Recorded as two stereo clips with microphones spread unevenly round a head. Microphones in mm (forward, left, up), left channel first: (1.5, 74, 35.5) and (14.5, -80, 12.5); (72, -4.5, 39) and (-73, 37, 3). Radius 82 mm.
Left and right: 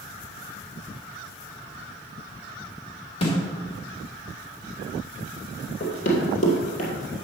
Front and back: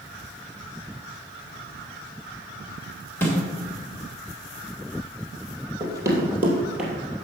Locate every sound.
3.2 s a snare drum: 50° left, 2.5 m
5.8 s running footsteps: 95° left, 3 m; by 6.9 s 70° left, 3 m